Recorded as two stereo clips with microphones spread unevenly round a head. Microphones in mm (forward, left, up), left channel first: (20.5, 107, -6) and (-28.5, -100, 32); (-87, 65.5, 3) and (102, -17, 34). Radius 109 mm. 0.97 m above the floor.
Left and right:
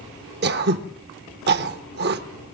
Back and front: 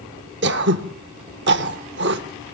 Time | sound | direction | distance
0.4 | throat clearing | 65° right | 1.3 m